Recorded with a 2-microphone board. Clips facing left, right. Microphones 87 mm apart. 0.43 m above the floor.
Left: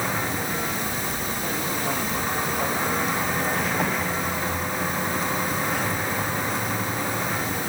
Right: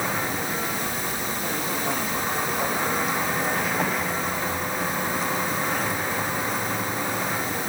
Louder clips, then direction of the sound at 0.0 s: Even; 5° right (ahead or behind).